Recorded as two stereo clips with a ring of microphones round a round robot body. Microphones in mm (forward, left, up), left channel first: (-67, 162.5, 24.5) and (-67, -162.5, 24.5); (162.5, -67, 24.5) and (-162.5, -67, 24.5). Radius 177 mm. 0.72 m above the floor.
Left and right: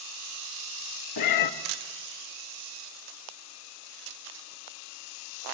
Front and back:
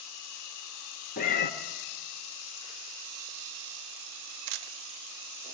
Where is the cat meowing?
65° left, 1.3 m.